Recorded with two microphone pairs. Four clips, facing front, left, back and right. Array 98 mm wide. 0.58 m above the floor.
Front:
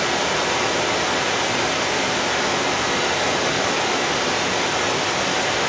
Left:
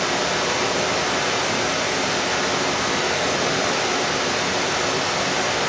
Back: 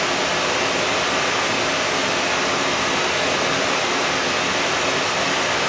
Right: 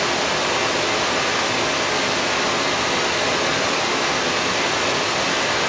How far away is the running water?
About 5.5 m.